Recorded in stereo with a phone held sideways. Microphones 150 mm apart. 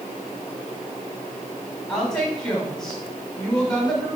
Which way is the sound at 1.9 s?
5° left (ahead or behind).